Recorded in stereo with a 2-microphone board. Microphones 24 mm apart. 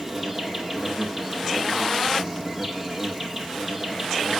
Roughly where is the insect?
Centre.